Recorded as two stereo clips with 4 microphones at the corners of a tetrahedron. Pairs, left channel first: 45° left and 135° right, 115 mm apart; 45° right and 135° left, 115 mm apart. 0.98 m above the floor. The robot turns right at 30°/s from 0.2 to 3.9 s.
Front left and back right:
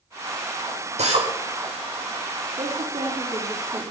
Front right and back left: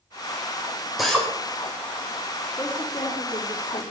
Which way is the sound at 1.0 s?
135° right.